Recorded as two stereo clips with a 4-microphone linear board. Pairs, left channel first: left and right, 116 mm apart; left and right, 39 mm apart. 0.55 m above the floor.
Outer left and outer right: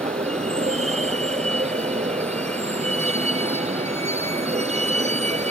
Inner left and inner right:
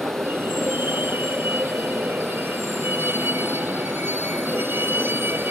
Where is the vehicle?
70° right (ahead or behind).